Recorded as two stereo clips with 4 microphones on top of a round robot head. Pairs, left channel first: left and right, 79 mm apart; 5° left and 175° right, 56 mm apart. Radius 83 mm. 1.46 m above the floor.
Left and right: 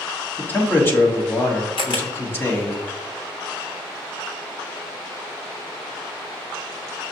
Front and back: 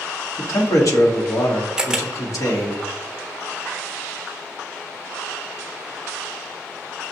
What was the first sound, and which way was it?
A man speaking, 30° left.